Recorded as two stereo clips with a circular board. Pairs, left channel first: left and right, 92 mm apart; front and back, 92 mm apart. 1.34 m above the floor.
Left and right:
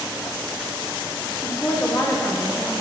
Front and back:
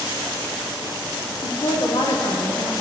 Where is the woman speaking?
30° left, 0.8 m.